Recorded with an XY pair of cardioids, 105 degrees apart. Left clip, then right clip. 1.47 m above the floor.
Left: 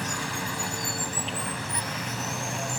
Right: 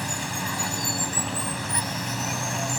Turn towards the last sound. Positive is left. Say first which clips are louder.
# right 1 dB
turn(degrees=-20)